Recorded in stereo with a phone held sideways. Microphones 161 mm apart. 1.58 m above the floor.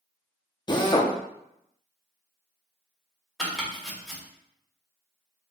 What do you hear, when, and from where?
0.7 s a drill: 30° left (ahead or behind), 0.7 m
3.4 s chopping: centre (ahead or behind), 1.8 m